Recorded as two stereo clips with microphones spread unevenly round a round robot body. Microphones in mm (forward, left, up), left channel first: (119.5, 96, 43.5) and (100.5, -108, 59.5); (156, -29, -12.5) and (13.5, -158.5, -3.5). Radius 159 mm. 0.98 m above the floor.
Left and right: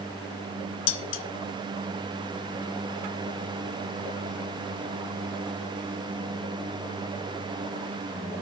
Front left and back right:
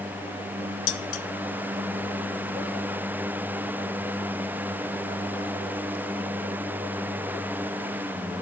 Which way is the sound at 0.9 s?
60° left.